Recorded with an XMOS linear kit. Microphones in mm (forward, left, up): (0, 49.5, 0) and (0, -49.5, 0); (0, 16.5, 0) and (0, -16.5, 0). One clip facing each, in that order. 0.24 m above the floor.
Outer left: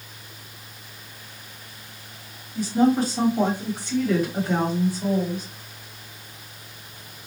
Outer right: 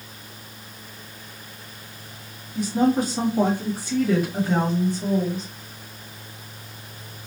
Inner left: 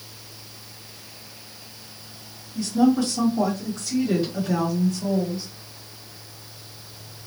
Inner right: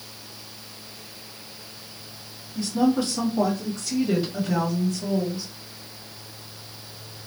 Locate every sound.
2.5 s a woman speaking: 20° right (ahead or behind), 1.5 m; by 5.5 s 15° left (ahead or behind), 1.5 m